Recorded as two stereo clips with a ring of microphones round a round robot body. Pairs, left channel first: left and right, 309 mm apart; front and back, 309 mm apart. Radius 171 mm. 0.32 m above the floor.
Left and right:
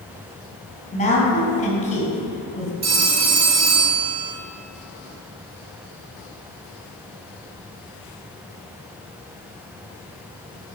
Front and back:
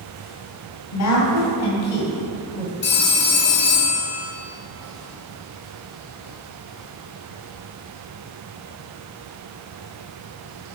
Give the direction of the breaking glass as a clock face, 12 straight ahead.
I don't hear breaking glass.